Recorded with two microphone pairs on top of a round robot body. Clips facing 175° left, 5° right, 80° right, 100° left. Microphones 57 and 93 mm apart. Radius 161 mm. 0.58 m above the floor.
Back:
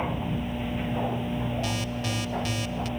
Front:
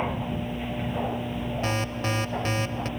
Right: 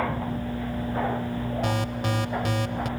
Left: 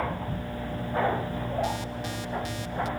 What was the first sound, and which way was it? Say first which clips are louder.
An alarm: front 2 dB, right 4 dB; 55° right.